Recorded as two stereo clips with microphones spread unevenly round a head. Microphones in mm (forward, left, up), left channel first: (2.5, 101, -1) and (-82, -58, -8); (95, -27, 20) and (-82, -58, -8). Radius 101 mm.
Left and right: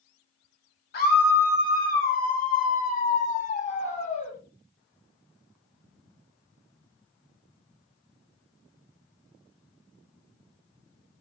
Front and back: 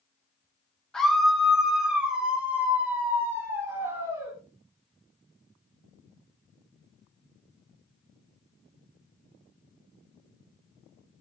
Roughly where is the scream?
Left.